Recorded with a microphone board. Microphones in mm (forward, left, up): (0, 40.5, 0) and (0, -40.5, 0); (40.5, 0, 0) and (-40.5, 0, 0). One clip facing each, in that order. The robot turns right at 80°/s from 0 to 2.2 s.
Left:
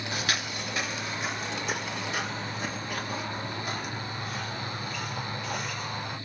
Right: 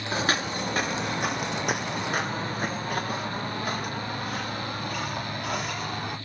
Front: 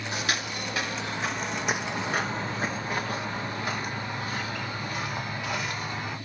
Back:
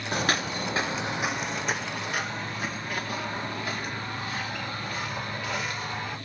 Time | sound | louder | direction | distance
0.1 | footsteps | right 7 dB, back 5 dB | 145° right | 0.8 m